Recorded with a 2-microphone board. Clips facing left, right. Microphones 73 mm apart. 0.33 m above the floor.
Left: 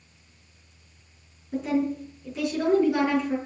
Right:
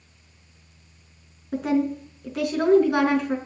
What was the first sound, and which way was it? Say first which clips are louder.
A woman speaking: right 2 dB; 65° right (ahead or behind).